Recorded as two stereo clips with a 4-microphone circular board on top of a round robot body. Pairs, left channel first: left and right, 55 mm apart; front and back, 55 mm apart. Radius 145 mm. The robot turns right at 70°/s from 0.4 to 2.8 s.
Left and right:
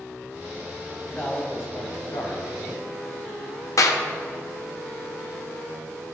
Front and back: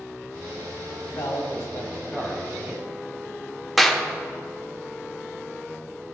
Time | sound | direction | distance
1.1 | a man speaking | 20° left | 1.9 m
3.8 | a clap | 90° left | 0.9 m